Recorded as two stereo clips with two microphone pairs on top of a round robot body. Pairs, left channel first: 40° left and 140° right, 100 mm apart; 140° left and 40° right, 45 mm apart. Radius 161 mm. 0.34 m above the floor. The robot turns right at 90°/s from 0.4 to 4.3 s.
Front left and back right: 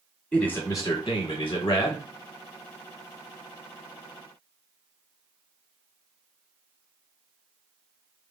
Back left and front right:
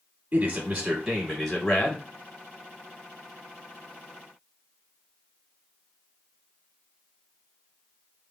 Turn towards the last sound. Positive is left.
turn(degrees=-55)